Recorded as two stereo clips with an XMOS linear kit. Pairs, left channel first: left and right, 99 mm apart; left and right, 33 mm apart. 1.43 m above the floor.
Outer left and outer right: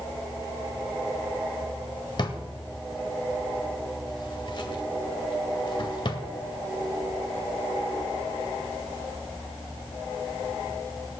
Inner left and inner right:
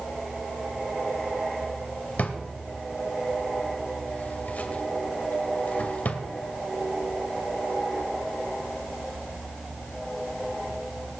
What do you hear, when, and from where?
2.2 s a drawer: 50° left (ahead or behind), 1.8 m